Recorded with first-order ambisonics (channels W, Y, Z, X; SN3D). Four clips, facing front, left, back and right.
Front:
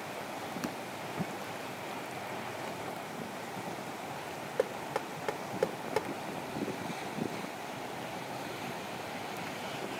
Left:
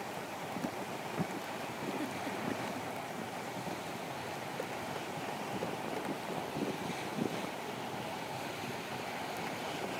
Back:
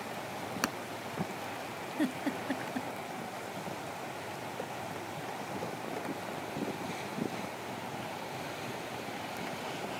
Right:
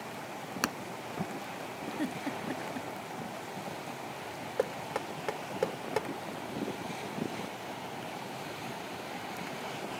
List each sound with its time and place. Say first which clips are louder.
0.6 s hammering: right 8 dB, back 6 dB; 120° right
2.0 s a giggle: right 2 dB, back 6 dB; 160° right
4.6 s knocking: right 5 dB, front 6 dB; 45° right